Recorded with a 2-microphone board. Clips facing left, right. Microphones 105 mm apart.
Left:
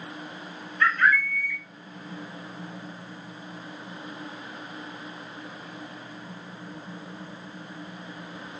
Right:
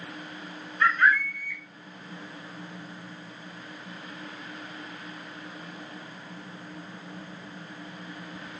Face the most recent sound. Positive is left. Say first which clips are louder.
# even
turn(degrees=-20)  # may be behind; listen again after turning